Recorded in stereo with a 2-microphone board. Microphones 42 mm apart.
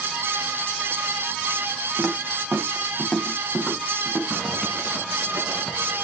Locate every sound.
2.0 s footsteps: 5° right (ahead or behind), 8 m; by 4.2 s 5° left (ahead or behind), 10 m
4.3 s a zipper: 15° right (ahead or behind), 4 m